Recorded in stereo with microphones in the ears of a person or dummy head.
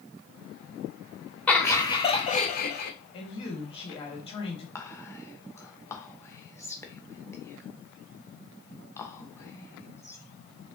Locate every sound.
1.5 s laughter: 10° left (ahead or behind), 0.8 m; by 2.9 s 55° left (ahead or behind), 1.0 m
3.1 s a woman speaking: 30° left (ahead or behind), 1.7 m
4.8 s whispering: 20° left (ahead or behind), 1.1 m